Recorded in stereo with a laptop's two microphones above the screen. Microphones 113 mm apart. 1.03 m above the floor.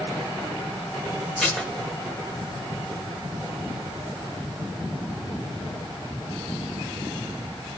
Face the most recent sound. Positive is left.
turn(degrees=5)  # may be behind; listen again after turning